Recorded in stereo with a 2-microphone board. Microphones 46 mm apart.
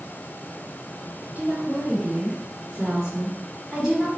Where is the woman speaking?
45° right (ahead or behind), 1.8 m; by 4.1 s centre (ahead or behind), 1.5 m.